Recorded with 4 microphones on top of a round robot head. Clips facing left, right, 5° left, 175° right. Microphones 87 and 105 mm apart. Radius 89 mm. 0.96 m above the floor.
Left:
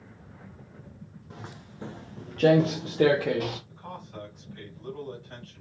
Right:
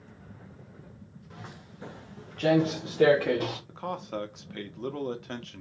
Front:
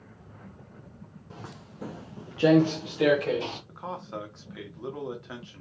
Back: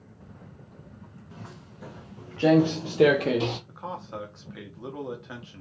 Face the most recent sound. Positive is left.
turn(degrees=-85)